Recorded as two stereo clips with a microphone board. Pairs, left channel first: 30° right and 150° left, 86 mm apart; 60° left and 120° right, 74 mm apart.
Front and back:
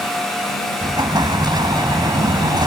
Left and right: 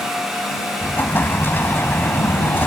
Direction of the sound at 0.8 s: 120° left.